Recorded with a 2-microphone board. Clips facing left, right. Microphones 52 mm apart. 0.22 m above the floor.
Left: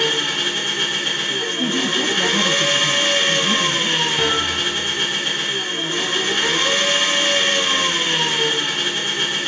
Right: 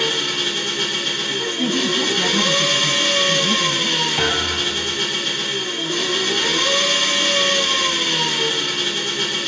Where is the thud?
50° right (ahead or behind), 0.9 m.